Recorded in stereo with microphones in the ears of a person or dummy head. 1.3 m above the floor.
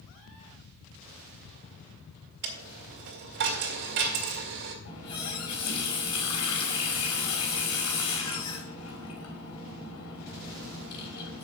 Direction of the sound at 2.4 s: 50° right (ahead or behind).